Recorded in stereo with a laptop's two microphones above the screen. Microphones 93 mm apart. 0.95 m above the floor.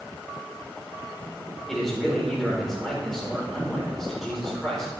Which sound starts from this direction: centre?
A man speaking, at 1.7 s.